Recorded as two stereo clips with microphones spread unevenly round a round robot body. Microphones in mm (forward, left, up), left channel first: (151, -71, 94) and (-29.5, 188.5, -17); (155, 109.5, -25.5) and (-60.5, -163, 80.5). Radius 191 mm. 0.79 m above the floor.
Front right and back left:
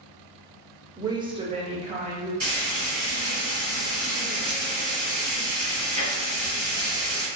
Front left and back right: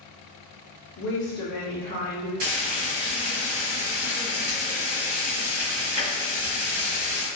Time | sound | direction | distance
1.0 | a woman speaking | 65° left | 0.7 m
2.4 | frying | 155° right | 1.3 m